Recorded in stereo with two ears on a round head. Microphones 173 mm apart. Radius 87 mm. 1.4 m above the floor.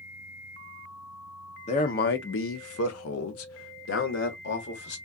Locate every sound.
1.7 s a man speaking: 35° left (ahead or behind), 0.6 m; by 5.0 s 55° left (ahead or behind), 1.6 m